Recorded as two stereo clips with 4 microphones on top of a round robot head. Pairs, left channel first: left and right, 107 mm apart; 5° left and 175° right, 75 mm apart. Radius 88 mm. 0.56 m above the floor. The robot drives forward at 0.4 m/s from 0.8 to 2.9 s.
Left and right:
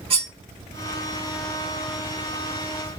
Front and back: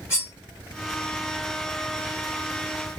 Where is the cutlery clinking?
60° right, 1.2 m.